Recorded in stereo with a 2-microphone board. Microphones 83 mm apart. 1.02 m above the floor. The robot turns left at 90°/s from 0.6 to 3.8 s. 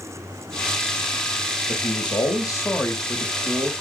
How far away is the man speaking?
About 1.3 m.